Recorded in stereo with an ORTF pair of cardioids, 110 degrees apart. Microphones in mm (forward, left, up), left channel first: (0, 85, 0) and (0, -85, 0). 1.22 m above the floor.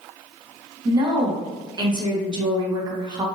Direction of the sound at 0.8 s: 25° right.